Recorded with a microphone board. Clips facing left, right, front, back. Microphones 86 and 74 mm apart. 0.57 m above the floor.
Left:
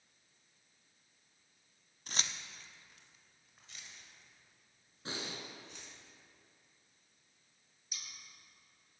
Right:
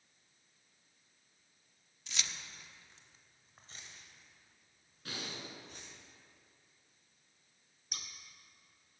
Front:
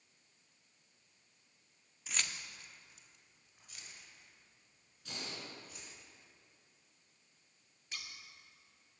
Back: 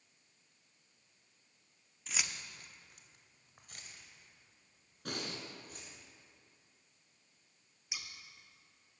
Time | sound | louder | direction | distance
2.1 | keys jangling | left 2 dB, even | 85° left | 0.6 m
5.0 | breathing | left 2 dB, back 5 dB | 155° left | 1.5 m
7.9 | scissors | right 4 dB, even | 100° right | 1.0 m